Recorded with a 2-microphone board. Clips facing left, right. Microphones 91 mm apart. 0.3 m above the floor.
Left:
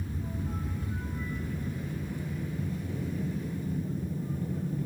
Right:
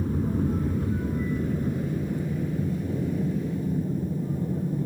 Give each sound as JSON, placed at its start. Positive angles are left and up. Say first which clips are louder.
{"t": 0.0, "sound": "an aircraft", "louder": "right 11 dB", "side_deg": -50}